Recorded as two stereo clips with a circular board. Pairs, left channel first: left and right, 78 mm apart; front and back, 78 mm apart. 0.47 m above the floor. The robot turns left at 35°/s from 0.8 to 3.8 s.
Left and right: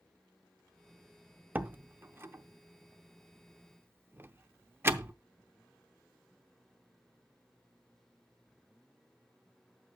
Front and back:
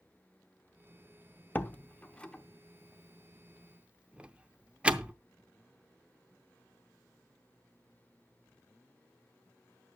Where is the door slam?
40° right, 0.6 m; by 5.1 s 120° right, 0.6 m.